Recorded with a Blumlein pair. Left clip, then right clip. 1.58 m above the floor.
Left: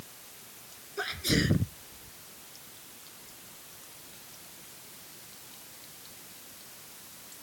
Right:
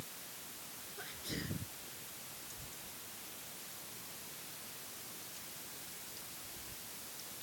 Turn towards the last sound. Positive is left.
turn(degrees=55)